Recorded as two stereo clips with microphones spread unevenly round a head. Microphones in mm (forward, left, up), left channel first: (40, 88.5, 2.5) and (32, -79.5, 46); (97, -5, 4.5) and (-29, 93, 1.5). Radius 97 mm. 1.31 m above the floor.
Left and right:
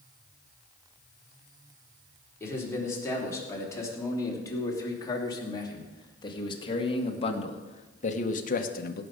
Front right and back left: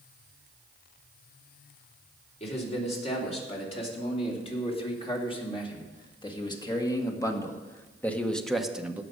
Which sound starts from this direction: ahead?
A man speaking, at 2.4 s.